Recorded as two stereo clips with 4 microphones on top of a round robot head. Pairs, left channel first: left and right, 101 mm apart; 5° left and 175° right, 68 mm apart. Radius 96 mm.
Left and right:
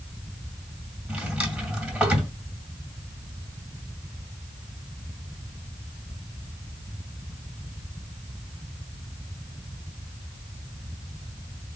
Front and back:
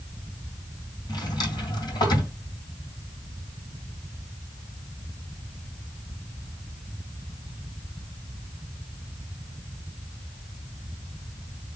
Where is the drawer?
15° right, 2 m.